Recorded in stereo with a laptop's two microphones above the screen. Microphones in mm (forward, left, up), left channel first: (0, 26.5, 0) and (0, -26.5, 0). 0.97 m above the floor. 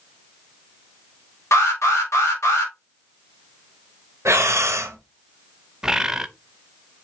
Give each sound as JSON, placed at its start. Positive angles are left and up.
{"t": 1.5, "sound": "an alarm", "side_deg": 65, "distance_m": 3.5}
{"t": 4.2, "sound": "breathing", "side_deg": -60, "distance_m": 1.3}
{"t": 5.8, "sound": "a bird", "side_deg": -10, "distance_m": 0.5}